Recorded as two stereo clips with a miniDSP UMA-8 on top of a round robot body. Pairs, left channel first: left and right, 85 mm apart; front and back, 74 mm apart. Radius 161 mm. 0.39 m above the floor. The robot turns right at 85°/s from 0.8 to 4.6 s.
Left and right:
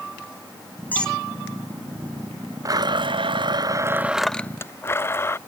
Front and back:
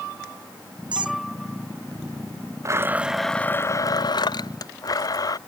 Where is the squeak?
160° left; by 1.2 s straight behind.